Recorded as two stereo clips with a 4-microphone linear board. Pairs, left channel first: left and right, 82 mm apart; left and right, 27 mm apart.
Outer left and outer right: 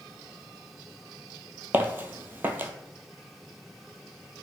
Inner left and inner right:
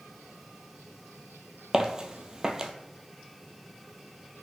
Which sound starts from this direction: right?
Footsteps, at 1.7 s.